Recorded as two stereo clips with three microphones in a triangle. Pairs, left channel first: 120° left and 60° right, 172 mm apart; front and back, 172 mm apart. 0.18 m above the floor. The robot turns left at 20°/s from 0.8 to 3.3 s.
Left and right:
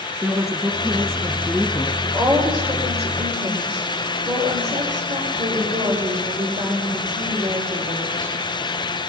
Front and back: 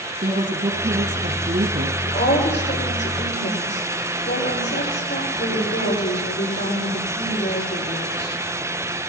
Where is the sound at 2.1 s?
15° left, 9.5 m; by 8.3 s 10° right, 9.5 m.